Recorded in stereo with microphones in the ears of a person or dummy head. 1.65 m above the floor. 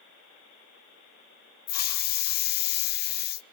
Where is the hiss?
45° left (ahead or behind), 0.6 m.